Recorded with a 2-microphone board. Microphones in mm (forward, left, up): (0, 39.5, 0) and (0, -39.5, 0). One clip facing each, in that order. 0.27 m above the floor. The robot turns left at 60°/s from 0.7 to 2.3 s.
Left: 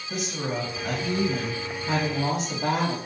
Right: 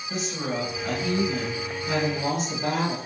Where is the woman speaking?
Centre (ahead or behind), 1.5 m; by 3.0 s 30° left (ahead or behind), 1.5 m.